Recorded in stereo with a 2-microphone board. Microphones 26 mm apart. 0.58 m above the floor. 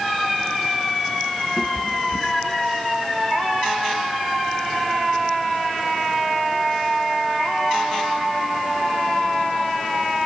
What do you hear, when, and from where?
1.6 s a cat meowing: 30° left (ahead or behind), 2.5 m; by 2.7 s 15° left (ahead or behind), 3 m